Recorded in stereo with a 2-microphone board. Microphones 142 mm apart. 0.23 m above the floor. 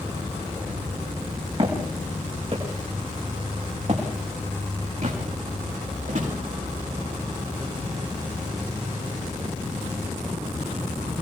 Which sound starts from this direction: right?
Footsteps, at 1.6 s.